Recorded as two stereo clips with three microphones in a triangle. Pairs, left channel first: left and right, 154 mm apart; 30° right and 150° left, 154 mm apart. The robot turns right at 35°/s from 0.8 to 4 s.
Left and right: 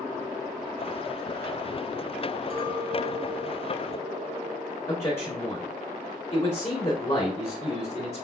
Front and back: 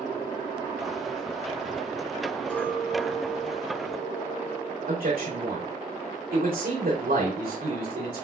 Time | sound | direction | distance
2.5 | a clink | 110° right | 0.9 m
4.9 | a man speaking | 145° left | 2 m